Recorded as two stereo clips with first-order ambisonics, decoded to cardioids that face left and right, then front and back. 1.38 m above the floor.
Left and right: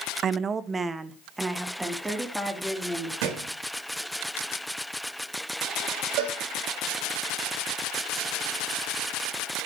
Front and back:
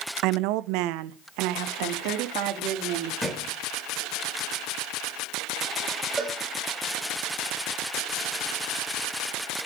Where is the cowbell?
105° right, 7 m.